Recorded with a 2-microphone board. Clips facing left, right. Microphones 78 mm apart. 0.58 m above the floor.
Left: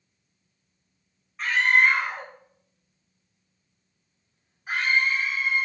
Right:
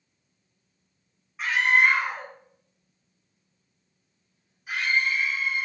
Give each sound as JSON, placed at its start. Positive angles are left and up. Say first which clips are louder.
{"t": 1.4, "sound": "a scream", "louder": "left 1 dB", "side_deg": -5, "distance_m": 3.5}